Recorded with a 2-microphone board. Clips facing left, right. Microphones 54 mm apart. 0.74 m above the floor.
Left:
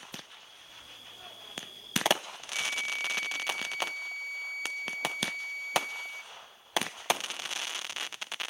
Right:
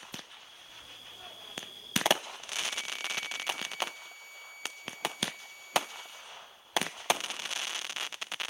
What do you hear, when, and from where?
2.5 s a flute: 50° left (ahead or behind), 1.3 m